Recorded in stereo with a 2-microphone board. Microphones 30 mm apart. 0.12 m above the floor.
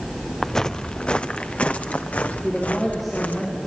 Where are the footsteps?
10° left (ahead or behind), 0.8 m; by 3.4 s 50° left (ahead or behind), 2.5 m.